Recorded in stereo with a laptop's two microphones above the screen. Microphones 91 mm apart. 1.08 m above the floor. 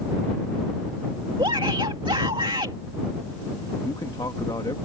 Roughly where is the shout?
Right.